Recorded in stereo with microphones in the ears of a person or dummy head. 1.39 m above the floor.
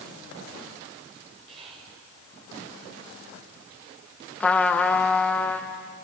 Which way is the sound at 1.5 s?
35° right (ahead or behind).